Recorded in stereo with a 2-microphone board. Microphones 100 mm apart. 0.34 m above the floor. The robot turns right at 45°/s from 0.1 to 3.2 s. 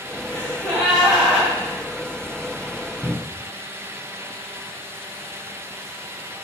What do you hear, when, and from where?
0.3 s a gasp: 150° left, 1.2 m; by 1.5 s 155° right, 1.2 m
3.0 s a cupboard door: 30° right (ahead or behind), 1.6 m